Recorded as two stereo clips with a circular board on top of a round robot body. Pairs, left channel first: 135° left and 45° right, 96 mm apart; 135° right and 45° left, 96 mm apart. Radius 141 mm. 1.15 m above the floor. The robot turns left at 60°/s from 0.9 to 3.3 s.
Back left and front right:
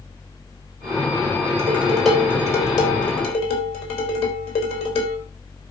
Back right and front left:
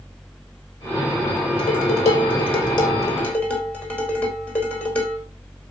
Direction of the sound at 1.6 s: 110° right.